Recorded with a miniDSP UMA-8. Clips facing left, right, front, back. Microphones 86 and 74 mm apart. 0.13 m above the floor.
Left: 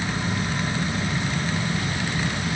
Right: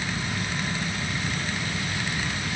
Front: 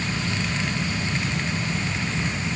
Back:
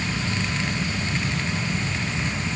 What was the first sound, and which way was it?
Only background noise.